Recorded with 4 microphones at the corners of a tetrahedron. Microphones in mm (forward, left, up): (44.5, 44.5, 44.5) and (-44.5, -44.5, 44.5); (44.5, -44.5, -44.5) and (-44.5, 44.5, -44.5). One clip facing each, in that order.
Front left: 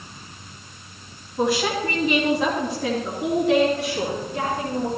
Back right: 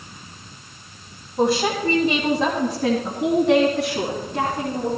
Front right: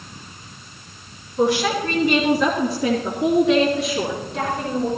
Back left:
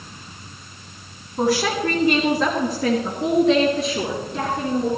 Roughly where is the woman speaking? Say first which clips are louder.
Back right 2 dB, front right 1 dB; behind.